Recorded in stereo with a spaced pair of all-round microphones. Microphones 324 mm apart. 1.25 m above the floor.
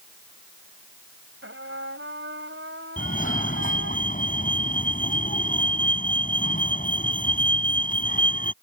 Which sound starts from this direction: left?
A fire alarm, at 3.0 s.